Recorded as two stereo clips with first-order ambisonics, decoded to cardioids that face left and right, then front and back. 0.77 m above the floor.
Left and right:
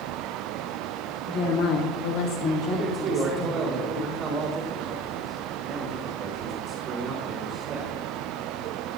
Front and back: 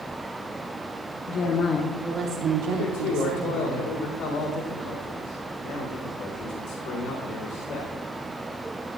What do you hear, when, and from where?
1.3 s a woman speaking: 40° left, 1.3 m; by 3.7 s 165° left, 2.5 m
2.7 s a man speaking: 30° right, 2.5 m